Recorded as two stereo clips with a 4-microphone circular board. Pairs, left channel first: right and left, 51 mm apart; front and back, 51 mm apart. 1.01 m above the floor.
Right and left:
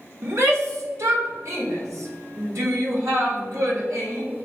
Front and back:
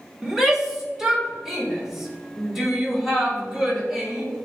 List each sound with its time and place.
0.2 s a shout: 100° left, 3 m; by 4.2 s 95° left, 6 m